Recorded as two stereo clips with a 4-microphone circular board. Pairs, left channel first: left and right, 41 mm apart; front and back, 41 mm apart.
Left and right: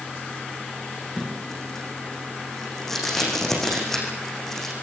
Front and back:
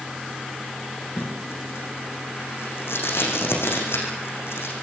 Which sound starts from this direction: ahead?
Tape being pulled, at 1.2 s.